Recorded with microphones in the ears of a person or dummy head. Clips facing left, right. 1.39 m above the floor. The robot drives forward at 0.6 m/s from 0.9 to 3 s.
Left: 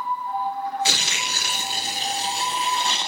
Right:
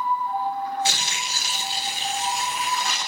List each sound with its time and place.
0.8 s tearing paper: 55° left (ahead or behind), 0.6 m; by 3.1 s 20° left (ahead or behind), 1.5 m